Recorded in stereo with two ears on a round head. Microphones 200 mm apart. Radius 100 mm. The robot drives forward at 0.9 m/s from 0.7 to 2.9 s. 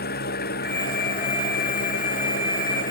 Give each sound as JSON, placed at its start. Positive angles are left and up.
{"t": 0.0, "sound": "an engine running", "side_deg": 45}